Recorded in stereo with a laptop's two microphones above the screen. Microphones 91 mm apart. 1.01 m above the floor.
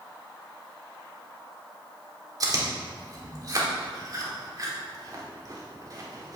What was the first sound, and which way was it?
Chewing, 45° right (ahead or behind).